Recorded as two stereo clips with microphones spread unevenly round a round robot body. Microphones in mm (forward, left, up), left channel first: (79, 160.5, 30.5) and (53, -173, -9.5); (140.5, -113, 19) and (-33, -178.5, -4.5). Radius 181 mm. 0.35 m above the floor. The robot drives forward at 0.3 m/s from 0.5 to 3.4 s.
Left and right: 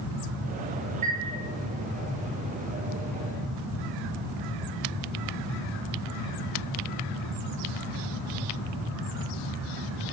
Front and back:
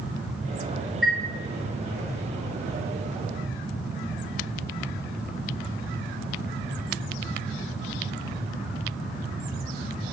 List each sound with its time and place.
1.0 s a chime: 65° right, 1.7 m; by 1.2 s 70° right, 1.7 m